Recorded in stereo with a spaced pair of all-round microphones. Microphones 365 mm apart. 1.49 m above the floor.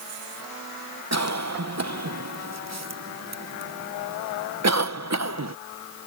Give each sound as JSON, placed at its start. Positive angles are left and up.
{"t": 1.1, "sound": "a cough", "side_deg": -45}